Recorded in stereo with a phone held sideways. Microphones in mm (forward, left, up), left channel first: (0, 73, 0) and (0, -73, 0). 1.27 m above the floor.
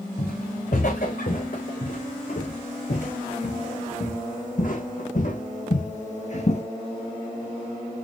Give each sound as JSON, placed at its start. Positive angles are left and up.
{"t": 0.2, "sound": "footsteps", "side_deg": 70, "distance_m": 5.0}